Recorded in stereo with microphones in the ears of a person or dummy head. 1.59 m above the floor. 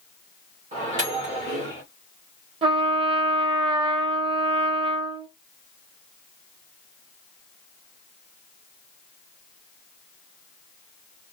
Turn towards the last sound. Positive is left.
turn(degrees=-30)  # may be behind; listen again after turning